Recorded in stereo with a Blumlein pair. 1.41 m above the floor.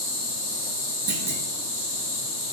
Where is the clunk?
45° right, 0.6 m.